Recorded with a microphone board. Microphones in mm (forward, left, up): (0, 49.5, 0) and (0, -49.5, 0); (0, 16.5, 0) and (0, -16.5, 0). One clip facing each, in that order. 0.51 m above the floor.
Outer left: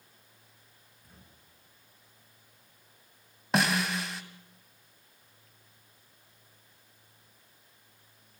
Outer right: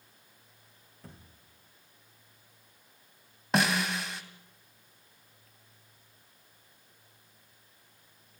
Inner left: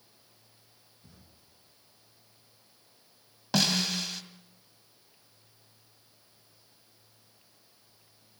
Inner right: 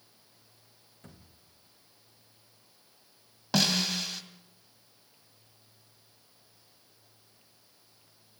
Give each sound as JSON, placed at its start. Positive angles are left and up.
{"t": 1.0, "sound": "a thud", "side_deg": -80, "distance_m": 7.0}
{"t": 3.5, "sound": "a snare drum", "side_deg": 0, "distance_m": 1.9}